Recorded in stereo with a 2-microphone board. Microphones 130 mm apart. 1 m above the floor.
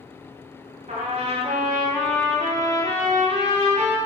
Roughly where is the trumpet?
Right.